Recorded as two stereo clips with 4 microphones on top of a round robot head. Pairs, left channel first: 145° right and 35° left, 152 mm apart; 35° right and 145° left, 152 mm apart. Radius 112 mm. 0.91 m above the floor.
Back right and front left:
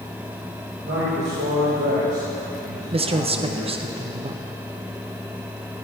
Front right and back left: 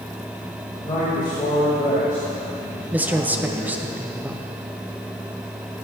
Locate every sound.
0.8 s a man speaking: 25° left, 4.5 m; by 3.9 s 35° left, 6 m
2.9 s a man speaking: 70° left, 0.9 m